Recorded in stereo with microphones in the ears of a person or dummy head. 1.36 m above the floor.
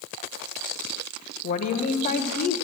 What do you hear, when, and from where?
1.4 s a woman speaking: 35° left (ahead or behind), 0.9 m